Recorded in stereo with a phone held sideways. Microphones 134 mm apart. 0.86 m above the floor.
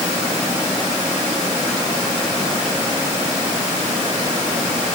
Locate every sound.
Only background noise.